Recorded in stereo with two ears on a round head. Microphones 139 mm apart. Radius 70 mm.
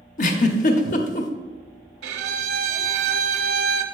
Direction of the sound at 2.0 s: 80° right.